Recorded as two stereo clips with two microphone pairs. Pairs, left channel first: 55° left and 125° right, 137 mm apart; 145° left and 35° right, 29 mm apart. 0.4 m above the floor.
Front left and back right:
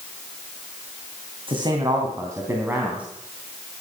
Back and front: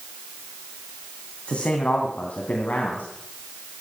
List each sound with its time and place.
1.5 s a man speaking: 175° right, 2.5 m; by 3.1 s 155° left, 3 m